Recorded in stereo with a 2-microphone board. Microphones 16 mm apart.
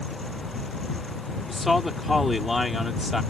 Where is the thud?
No thud in this recording.